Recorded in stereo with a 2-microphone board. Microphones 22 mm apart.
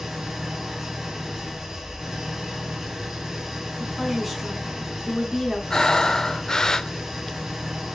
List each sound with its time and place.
0.0 s an engine running: 20° right (ahead or behind), 4 m
3.8 s a woman speaking: centre (ahead or behind), 4 m
5.7 s breathing: 30° left (ahead or behind), 0.5 m